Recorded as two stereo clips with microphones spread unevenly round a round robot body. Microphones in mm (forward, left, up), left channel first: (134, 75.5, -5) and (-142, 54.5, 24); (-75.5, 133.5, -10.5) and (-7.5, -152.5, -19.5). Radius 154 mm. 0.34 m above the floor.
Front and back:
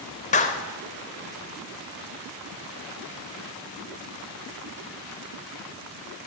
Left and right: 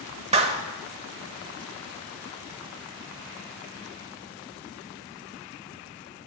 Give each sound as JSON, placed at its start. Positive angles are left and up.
{"t": 0.3, "sound": "a clap", "azimuth_deg": -25, "distance_m": 0.7}